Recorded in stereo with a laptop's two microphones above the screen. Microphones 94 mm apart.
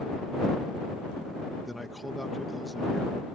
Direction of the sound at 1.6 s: Centre (ahead or behind).